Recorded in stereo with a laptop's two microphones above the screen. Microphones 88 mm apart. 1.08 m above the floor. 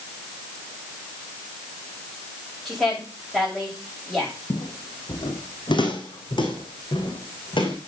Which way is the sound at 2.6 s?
5° left (ahead or behind).